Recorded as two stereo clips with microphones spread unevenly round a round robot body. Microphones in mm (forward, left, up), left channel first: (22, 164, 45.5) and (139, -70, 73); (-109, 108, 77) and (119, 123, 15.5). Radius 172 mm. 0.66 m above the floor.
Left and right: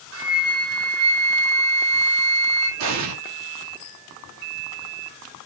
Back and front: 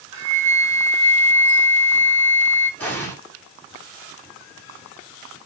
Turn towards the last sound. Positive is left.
turn(degrees=-85)